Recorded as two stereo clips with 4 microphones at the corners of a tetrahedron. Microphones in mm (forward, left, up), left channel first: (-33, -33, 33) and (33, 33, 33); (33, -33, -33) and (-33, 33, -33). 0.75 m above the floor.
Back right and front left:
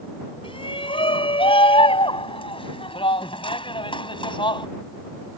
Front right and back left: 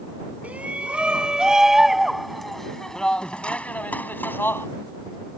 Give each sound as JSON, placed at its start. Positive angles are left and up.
{"t": 0.4, "sound": "a shout", "azimuth_deg": -150}